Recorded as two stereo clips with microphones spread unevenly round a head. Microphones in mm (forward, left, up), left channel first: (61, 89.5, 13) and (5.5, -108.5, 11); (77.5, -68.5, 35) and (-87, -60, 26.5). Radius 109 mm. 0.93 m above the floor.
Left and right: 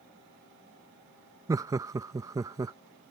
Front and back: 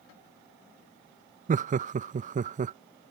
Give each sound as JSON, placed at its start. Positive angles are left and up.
{"t": 1.5, "sound": "laughter", "azimuth_deg": -175}